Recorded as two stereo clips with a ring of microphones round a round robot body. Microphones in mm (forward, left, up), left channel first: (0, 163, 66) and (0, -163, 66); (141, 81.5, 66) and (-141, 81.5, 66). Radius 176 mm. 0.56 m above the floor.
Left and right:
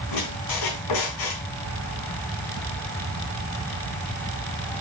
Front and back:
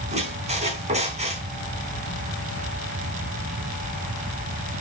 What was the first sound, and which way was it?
A squeak, 115° left.